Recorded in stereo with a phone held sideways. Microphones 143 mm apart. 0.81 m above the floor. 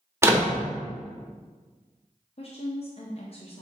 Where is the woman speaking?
45° left (ahead or behind), 0.6 m.